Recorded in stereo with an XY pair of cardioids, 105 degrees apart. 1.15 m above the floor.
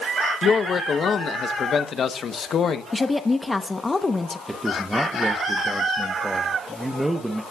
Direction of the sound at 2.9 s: 20° left.